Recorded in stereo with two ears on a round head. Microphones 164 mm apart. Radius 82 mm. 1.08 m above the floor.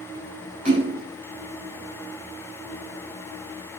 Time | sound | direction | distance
0.7 | a splash | 30° right (ahead or behind) | 6.5 m